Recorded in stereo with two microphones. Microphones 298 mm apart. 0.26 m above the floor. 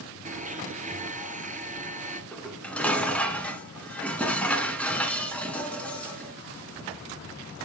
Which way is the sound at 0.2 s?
25° right (ahead or behind).